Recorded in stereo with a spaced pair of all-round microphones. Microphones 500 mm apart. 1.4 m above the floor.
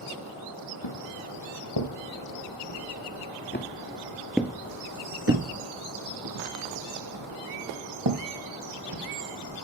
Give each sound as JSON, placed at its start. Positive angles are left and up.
{"t": 0.8, "sound": "footsteps", "side_deg": 55, "distance_m": 2.5}